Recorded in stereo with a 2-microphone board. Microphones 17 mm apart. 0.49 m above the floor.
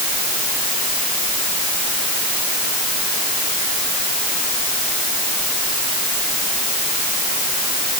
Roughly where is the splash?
I don't hear a splash.